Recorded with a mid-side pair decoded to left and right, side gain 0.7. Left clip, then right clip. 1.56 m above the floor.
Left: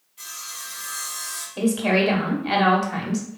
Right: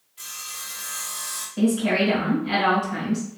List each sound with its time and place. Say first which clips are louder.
0.2 s sawing: even; 10° right, 1.2 m
1.6 s a woman speaking: left 1 dB; 45° left, 1.4 m